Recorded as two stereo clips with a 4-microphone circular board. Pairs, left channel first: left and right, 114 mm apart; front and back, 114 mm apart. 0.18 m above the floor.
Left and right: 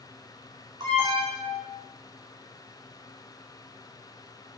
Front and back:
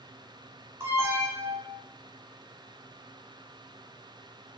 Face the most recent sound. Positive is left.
turn(degrees=-120)